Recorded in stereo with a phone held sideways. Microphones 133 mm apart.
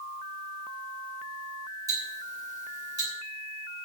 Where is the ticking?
25° right (ahead or behind), 7.5 m.